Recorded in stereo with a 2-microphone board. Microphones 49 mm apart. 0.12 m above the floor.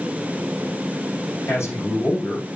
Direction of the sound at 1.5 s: 60° left (ahead or behind).